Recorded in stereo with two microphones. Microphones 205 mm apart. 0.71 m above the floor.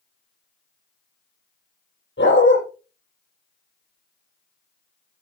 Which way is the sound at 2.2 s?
80° left.